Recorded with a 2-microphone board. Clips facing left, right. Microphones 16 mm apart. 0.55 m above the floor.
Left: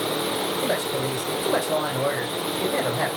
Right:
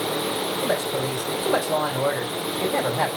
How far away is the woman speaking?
About 3 m.